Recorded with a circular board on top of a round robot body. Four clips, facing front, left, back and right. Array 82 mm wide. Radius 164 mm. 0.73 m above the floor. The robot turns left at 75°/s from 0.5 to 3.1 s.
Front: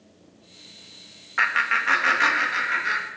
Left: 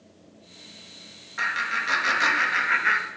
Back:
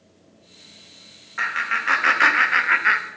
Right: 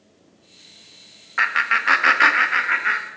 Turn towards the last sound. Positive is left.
turn(degrees=170)